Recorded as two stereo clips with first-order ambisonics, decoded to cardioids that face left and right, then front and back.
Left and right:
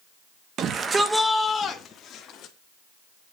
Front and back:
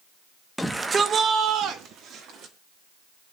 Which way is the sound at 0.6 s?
85° right.